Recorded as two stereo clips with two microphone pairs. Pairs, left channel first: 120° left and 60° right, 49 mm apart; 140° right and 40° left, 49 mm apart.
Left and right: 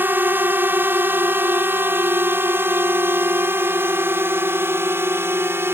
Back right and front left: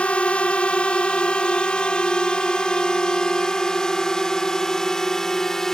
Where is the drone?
85° right; by 5.8 s 60° right.